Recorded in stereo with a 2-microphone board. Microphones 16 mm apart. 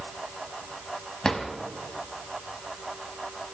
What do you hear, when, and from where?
1.2 s a drawer: 45° left (ahead or behind), 2.5 m